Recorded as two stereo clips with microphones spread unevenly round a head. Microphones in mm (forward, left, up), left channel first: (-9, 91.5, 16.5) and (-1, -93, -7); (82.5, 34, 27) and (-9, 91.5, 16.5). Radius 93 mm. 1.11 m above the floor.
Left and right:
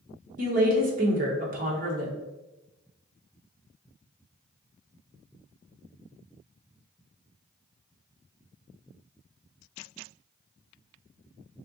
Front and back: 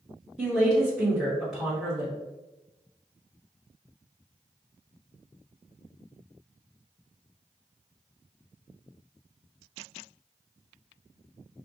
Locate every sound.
0.4 s a woman speaking: 125° right, 1.3 m